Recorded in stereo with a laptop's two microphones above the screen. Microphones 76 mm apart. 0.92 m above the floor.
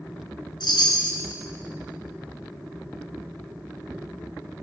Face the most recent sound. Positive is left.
turn(degrees=85)